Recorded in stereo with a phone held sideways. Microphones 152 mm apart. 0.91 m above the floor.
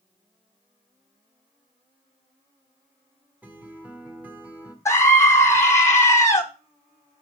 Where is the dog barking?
I don't hear a dog barking.